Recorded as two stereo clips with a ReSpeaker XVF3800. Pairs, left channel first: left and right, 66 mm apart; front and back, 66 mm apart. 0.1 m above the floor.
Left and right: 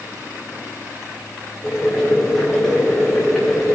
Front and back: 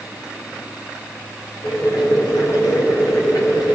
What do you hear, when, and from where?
1.6 s boiling: straight ahead, 4 m